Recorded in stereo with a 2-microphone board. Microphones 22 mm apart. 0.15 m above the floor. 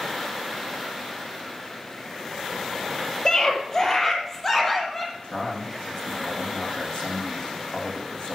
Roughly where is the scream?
Left.